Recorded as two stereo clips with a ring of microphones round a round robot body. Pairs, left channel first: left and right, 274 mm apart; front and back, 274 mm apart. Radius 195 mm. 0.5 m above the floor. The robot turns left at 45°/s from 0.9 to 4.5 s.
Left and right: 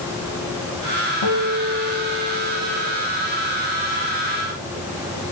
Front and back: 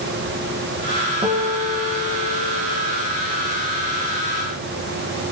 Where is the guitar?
110° left, 6.5 m; by 3.0 s 30° left, 6.5 m.